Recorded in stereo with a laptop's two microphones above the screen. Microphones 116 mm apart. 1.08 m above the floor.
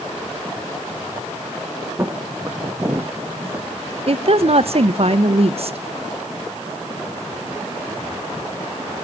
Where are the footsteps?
15° right (ahead or behind), 1.8 m; by 3.7 s 20° right (ahead or behind), 1.1 m.